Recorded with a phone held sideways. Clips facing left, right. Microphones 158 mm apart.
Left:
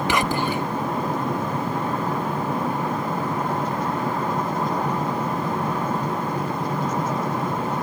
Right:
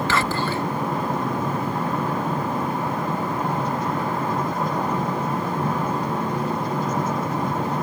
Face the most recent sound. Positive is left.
turn(degrees=15)  # may be behind; listen again after turning